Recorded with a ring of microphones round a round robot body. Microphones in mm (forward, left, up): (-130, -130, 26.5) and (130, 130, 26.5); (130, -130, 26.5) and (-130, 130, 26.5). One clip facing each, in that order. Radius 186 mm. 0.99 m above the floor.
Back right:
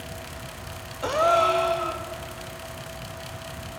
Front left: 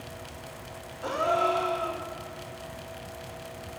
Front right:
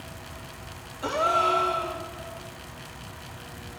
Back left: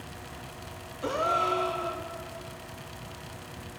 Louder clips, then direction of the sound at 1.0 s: Back right 4 dB, front right 2 dB; 120° right.